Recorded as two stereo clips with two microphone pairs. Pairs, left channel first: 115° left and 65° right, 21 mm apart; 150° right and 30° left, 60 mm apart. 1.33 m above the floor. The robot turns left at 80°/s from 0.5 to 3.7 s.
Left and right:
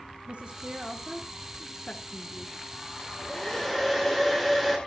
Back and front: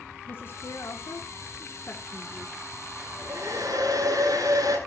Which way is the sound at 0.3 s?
100° right.